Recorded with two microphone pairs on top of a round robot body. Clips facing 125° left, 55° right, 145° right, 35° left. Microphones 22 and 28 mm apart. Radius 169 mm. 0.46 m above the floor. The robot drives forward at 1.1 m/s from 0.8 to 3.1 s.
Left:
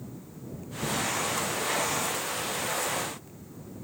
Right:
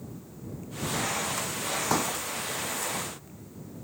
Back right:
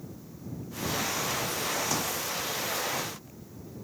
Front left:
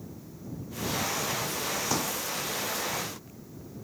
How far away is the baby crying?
I don't hear a baby crying.